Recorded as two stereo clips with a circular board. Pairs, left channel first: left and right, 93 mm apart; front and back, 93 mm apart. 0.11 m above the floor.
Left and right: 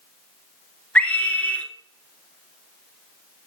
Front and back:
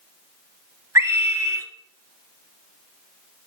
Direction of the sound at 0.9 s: 155° left.